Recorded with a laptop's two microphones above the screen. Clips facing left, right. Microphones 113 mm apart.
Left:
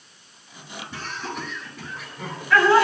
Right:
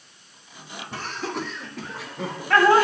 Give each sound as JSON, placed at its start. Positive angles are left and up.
{"t": 0.9, "sound": "laughter", "side_deg": -70, "distance_m": 3.0}